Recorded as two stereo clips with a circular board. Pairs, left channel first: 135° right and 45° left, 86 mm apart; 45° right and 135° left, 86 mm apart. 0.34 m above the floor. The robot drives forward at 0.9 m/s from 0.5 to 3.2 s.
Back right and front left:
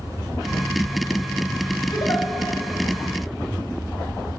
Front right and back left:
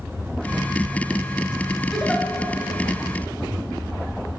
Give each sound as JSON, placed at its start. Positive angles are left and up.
{"t": 1.9, "sound": "a giggle", "azimuth_deg": -130, "distance_m": 2.5}